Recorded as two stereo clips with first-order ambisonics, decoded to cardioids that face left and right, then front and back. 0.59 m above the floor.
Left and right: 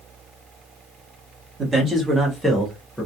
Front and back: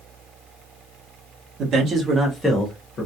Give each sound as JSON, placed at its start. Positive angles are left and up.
{"t": 1.6, "sound": "a man speaking", "azimuth_deg": -150, "distance_m": 0.9}